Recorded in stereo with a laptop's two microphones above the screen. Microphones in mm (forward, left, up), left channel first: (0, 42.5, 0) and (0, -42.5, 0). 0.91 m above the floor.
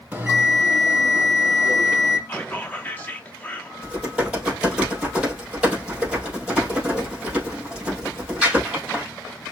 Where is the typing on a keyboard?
10° right (ahead or behind), 5 m.